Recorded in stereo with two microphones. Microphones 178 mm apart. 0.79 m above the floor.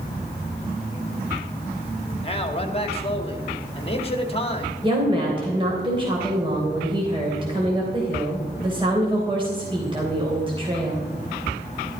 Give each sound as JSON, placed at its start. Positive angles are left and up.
{"t": 2.2, "sound": "a man speaking", "side_deg": 35, "distance_m": 1.9}
{"t": 4.8, "sound": "a woman speaking", "side_deg": -30, "distance_m": 3.0}